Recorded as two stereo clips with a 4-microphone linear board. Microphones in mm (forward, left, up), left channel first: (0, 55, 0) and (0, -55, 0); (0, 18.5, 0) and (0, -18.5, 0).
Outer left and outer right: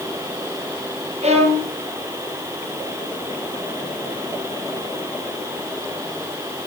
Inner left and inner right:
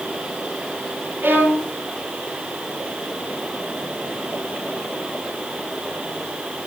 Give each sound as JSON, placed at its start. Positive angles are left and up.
{"t": 1.2, "sound": "a violin", "side_deg": -70, "distance_m": 3.5}